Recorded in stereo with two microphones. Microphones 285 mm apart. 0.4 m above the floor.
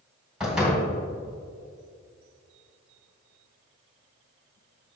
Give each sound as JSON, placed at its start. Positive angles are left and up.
{"t": 0.4, "sound": "a door slam", "side_deg": 0, "distance_m": 2.5}